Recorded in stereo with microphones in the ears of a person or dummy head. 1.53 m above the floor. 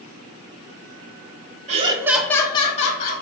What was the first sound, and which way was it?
Laughter, 35° right (ahead or behind).